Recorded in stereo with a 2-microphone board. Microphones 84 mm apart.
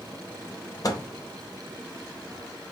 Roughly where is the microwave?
Left.